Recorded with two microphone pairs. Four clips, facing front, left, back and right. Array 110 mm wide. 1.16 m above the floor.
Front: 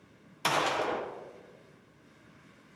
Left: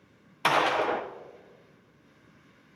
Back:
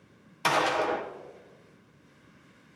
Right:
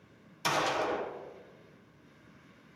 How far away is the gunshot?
About 0.8 m.